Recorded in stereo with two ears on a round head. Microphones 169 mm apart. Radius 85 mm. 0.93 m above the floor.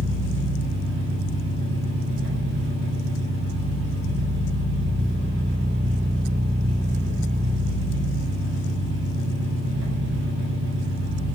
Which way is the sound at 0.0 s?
70° right (ahead or behind).